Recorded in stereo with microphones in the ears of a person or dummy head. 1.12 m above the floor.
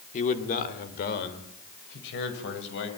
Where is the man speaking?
40° left (ahead or behind), 3 m; by 2.9 s 65° left (ahead or behind), 6.5 m.